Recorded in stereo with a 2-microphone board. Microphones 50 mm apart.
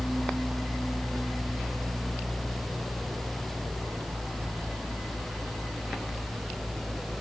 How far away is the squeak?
I don't hear a squeak.